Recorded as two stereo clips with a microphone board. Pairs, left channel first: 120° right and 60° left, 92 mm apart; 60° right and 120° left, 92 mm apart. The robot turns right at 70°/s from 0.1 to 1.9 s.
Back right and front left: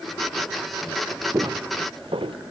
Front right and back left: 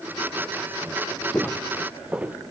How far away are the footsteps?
About 1.2 m.